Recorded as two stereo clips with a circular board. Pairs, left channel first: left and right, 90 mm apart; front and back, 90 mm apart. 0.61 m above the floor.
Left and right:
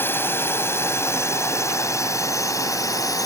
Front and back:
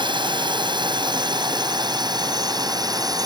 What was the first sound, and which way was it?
A drone, 155° left.